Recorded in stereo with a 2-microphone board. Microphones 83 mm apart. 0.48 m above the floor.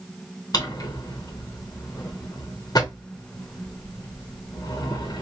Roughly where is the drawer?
Left.